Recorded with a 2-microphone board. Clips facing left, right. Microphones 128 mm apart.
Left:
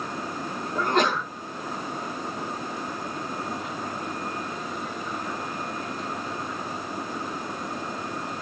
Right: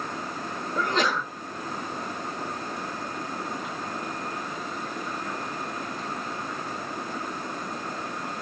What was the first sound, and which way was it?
A sneeze, 55° left (ahead or behind).